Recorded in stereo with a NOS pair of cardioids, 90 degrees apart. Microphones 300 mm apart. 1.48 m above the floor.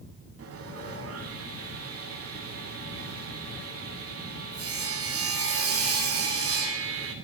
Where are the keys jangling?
No keys jangling in this recording.